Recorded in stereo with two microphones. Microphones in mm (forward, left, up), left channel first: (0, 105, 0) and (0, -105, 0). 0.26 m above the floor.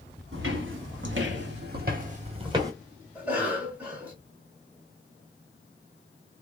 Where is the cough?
10° right (ahead or behind), 1.5 m.